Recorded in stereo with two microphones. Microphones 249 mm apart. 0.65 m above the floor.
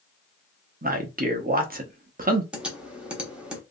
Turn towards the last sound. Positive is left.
turn(degrees=-5)  # may be behind; listen again after turning